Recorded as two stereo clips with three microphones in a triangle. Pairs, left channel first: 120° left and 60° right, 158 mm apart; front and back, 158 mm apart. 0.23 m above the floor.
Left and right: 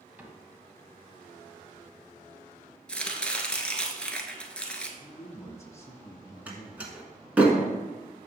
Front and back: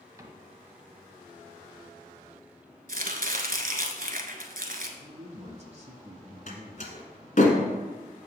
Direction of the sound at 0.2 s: 130° right.